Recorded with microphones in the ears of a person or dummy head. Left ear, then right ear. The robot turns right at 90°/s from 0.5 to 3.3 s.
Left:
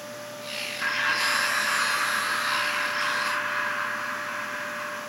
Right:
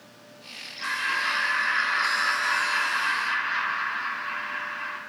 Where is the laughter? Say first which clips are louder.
Left 1 dB; 115° left, 1.9 m; by 5.0 s 20° right, 1.9 m.